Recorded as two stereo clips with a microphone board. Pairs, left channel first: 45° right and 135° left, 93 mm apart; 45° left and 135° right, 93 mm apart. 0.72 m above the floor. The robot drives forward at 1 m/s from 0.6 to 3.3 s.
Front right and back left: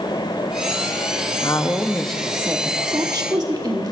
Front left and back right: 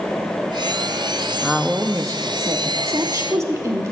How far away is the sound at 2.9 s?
About 0.9 m.